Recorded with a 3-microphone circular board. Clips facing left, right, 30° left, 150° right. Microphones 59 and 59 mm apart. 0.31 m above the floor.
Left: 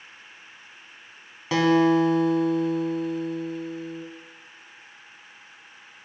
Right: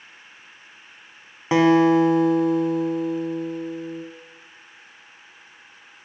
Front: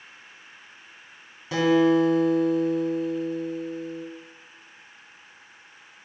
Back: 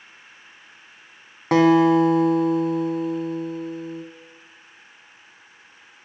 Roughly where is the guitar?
Behind right.